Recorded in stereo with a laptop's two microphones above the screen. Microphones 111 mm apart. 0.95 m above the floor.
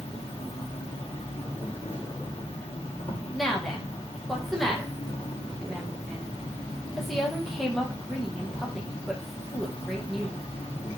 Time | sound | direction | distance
0.0 | an insect | 80° left | 0.9 m
3.3 | a woman speaking | centre (ahead or behind) | 0.9 m